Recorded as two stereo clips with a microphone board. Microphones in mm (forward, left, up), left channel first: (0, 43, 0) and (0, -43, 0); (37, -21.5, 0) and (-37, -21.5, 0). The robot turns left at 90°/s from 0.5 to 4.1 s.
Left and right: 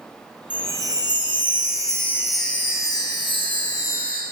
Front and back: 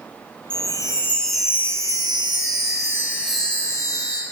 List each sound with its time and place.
0.5 s a chime: 15° right, 2.5 m; by 4.2 s 20° left, 2.5 m